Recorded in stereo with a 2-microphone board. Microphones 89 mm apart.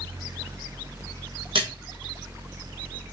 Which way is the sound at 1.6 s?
80° right.